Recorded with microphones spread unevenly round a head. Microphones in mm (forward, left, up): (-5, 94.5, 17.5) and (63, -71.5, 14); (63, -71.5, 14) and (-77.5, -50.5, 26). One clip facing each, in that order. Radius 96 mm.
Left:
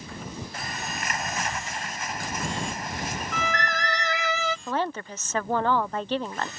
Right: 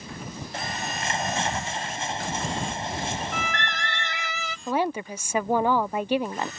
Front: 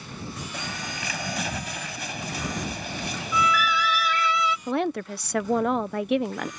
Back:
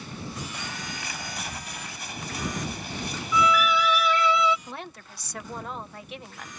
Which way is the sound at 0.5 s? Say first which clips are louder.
Right 3 dB, front 2 dB; 5° right.